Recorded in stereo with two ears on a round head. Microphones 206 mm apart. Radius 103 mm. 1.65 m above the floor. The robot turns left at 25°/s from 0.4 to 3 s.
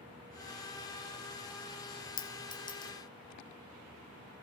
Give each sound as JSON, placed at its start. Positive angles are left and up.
{"t": 2.2, "sound": "a clink", "side_deg": 20, "distance_m": 0.5}